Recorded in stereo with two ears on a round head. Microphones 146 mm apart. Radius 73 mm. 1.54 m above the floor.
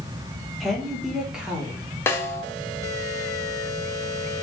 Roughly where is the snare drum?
Centre.